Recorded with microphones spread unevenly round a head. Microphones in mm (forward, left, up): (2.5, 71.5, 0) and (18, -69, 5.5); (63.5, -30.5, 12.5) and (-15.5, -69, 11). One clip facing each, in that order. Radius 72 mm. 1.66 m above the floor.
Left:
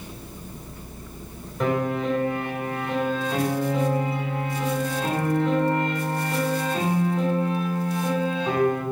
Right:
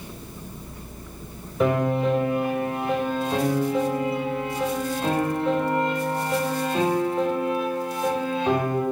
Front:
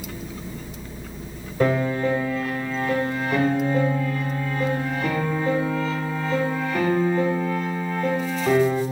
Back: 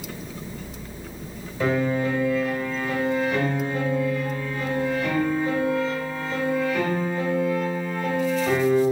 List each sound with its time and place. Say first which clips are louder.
1.6 s a piano: right 3 dB, front 2 dB; 5° left, 2.5 m